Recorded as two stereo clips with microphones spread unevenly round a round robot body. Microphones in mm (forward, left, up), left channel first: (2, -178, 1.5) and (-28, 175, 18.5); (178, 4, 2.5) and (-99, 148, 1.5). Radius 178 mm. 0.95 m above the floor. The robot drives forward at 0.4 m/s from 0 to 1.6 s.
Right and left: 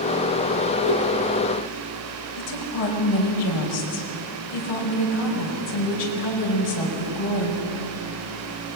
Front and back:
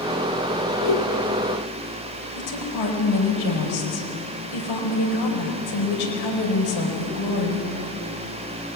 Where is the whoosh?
45° right, 8 m.